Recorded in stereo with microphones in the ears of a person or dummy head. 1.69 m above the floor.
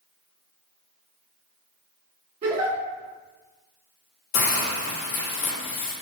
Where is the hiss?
55° left (ahead or behind), 1.4 m.